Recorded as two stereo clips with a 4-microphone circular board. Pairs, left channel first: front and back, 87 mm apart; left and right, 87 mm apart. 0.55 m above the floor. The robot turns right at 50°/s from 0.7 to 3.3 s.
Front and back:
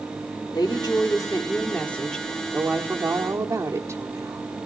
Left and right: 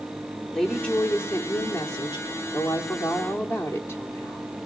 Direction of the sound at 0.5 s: 10° left.